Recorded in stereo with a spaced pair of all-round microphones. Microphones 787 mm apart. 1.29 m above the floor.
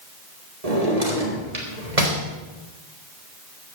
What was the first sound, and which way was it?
A drawer, 50° right (ahead or behind).